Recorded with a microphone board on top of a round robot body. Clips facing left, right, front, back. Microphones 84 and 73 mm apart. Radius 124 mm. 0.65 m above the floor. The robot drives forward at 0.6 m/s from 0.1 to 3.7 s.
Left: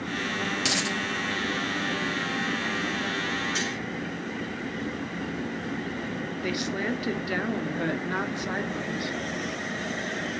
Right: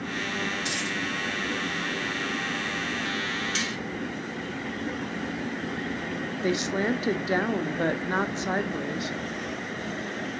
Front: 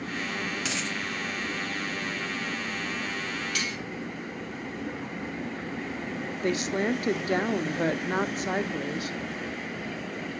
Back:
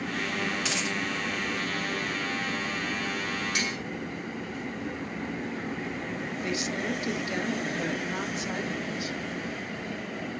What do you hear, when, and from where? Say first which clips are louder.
0.6 s a dropped coin: left 2 dB, back 1 dB; 85° left, 0.9 m; by 1.0 s 100° left, 0.9 m
3.5 s cutlery clinking: left 1 dB, back 1 dB; 110° right, 4 m
6.4 s a woman speaking: right 4 dB, front 6 dB; 30° right, 1.4 m